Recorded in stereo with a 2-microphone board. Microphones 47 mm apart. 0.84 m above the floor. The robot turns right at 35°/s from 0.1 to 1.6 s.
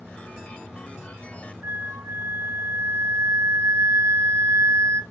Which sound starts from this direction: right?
A flute, at 1.6 s.